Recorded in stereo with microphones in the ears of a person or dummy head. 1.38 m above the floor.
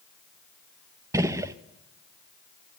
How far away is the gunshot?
About 0.7 m.